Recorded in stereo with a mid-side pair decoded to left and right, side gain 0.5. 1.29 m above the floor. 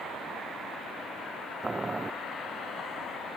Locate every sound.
1.6 s boiling: 20° right